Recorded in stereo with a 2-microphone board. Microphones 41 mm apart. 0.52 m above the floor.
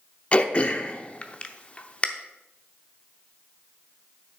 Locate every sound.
0.3 s throat clearing: 30° left (ahead or behind), 0.7 m